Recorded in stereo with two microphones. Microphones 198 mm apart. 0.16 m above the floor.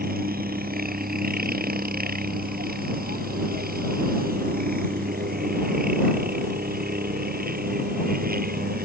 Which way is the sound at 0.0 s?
50° right (ahead or behind).